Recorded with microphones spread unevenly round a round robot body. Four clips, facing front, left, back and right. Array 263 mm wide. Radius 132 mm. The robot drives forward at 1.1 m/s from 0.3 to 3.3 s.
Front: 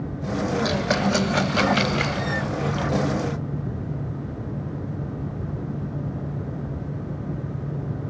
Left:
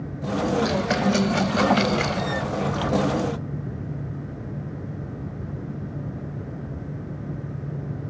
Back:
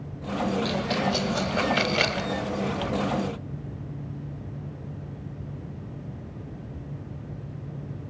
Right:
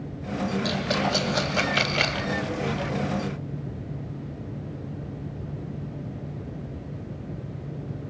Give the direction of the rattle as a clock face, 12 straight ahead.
12 o'clock.